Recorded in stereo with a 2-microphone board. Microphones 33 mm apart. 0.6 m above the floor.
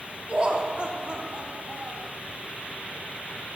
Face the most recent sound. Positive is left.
turn(degrees=-40)  # may be behind; listen again after turning